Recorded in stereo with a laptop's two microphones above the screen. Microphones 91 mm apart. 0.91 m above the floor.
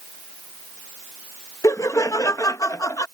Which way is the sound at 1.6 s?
40° left (ahead or behind).